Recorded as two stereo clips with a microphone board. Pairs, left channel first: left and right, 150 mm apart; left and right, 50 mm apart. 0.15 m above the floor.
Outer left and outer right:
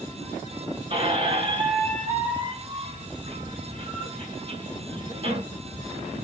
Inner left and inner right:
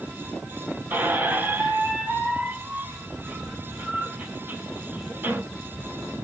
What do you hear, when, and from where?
0.9 s a squeak: 40° right (ahead or behind), 1.5 m